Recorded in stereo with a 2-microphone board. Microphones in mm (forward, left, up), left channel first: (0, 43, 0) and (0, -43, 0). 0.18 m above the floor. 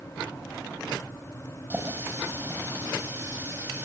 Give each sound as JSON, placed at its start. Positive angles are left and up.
{"t": 1.7, "sound": "a running tap", "side_deg": -25, "distance_m": 4.5}